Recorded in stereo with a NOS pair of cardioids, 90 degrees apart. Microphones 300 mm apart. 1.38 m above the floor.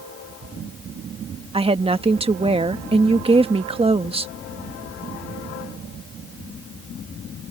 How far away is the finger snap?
No finger snap in this recording.